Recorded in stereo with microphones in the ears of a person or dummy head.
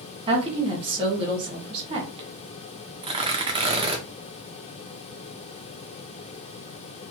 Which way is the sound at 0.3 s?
25° right (ahead or behind).